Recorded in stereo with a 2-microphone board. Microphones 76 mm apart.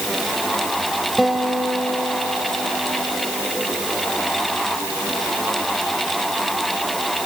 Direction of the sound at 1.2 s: 5° right (ahead or behind).